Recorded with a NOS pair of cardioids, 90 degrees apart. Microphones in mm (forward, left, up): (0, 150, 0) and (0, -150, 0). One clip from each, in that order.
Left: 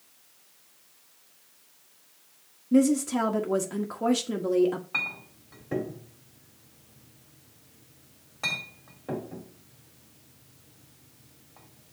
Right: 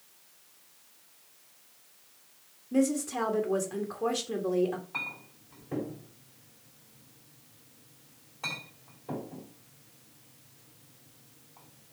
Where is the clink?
55° left, 3 m.